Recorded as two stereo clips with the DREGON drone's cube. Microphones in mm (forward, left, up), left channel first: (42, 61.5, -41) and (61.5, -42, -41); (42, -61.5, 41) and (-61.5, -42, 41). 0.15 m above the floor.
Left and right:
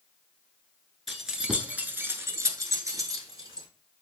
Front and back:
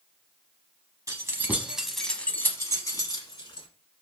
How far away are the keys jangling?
About 0.8 m.